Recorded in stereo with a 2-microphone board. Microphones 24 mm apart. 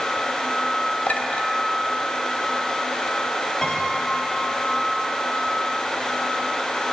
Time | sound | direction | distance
1.1 | a clink | 80° left | 2 m
3.6 | a piano | 15° left (ahead or behind) | 3 m